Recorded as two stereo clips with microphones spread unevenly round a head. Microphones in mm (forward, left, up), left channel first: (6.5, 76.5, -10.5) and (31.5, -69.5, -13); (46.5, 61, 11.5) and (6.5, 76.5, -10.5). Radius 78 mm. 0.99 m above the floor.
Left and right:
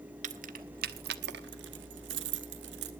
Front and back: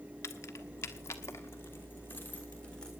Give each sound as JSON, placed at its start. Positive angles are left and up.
{"t": 0.2, "sound": "keys jangling", "azimuth_deg": -40, "distance_m": 1.1}